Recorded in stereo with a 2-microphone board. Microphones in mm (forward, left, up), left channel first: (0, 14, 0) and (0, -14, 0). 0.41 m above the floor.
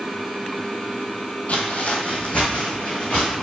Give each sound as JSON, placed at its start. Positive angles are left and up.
{"t": 1.5, "sound": "footsteps", "side_deg": 60, "distance_m": 0.7}